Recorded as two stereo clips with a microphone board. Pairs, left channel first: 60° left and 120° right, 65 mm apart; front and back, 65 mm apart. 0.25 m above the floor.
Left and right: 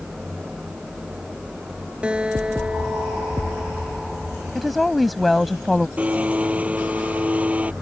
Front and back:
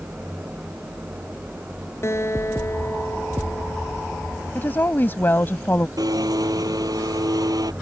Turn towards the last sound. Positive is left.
turn(degrees=175)